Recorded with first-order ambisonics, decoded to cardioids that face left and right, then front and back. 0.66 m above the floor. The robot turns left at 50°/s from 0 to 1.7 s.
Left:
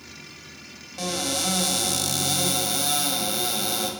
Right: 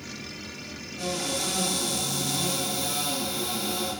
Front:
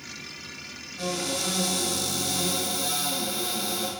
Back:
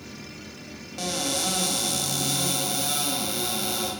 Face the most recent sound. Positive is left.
turn(degrees=105)